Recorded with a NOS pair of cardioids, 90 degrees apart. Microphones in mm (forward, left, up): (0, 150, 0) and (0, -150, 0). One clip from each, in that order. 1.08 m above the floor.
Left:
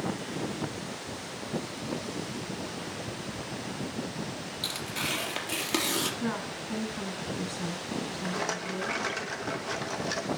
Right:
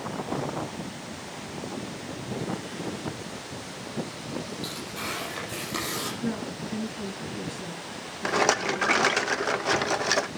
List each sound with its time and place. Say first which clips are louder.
4.6 s tearing paper: left 6 dB; 65° left, 4.5 m
6.2 s a woman speaking: right 1 dB; 65° left, 6.5 m
8.2 s a rattle: right 11 dB; 50° right, 0.9 m